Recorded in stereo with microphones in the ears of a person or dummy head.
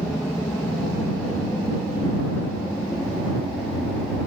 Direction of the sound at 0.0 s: 5° left (ahead or behind).